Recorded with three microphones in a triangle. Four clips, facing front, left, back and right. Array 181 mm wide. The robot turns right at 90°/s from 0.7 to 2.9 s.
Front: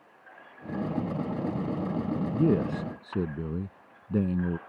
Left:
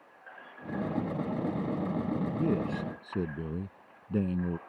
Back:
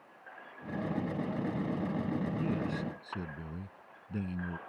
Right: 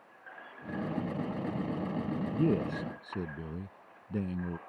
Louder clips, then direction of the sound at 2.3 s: Right 4 dB, front 9 dB; 20° right.